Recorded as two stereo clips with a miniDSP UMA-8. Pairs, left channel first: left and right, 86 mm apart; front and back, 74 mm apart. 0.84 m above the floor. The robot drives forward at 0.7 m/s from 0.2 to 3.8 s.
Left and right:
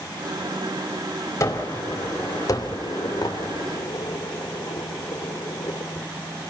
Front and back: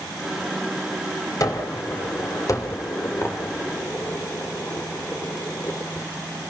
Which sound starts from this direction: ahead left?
A gunshot, at 1.4 s.